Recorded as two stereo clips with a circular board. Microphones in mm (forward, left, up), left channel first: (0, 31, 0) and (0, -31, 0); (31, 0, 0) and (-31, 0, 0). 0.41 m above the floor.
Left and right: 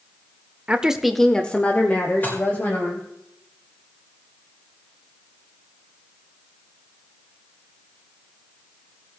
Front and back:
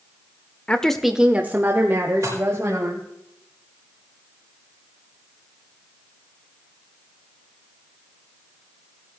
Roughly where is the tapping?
No tapping in this recording.